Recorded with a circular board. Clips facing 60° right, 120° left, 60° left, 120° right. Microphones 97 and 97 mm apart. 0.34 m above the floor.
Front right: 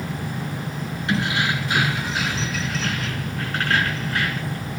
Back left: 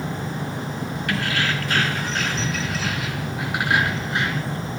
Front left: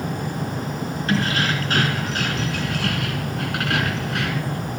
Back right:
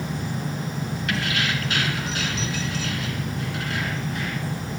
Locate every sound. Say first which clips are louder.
1.1 s keys jangling: front right 2 dB, front left 5 dB; 5° left, 2.5 m; by 4.6 s 55° left, 3 m